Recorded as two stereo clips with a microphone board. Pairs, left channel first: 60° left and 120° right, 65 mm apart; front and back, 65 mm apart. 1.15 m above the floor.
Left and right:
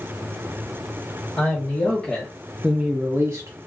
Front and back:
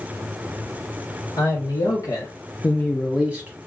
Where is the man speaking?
5° left, 1.3 m; by 3.6 s 125° right, 0.7 m.